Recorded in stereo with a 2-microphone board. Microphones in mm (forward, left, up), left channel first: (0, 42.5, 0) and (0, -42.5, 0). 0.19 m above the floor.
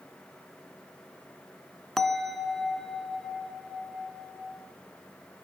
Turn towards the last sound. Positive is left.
turn(degrees=5)  # may be behind; listen again after turning